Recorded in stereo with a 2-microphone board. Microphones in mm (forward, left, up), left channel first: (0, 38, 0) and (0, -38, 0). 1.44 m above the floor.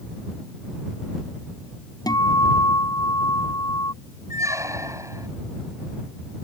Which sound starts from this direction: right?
A squeak, at 4.3 s.